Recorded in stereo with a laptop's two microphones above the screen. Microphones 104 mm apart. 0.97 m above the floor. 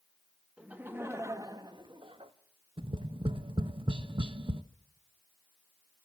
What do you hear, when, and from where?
0.6 s laughter: 10° right (ahead or behind), 1.2 m; by 2.3 s 60° right (ahead or behind), 1.1 m
2.8 s tapping: 55° right (ahead or behind), 0.8 m